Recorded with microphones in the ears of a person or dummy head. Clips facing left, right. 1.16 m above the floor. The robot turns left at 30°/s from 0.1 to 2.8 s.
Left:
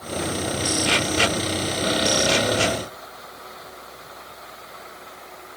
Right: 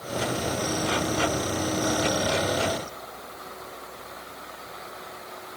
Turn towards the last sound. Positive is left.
No sound to turn to.